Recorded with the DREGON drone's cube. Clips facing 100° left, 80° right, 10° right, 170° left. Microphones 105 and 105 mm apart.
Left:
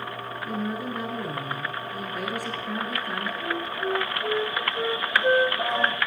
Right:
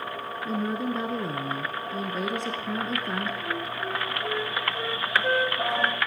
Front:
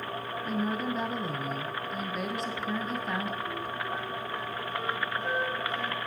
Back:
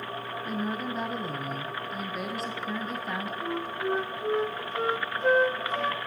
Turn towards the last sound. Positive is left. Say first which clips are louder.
# left 3 dB, back 4 dB
turn(degrees=165)